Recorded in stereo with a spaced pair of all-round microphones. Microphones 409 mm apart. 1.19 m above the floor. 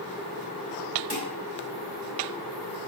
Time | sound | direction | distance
1.1 | dishes clattering | 70° right (ahead or behind) | 3 m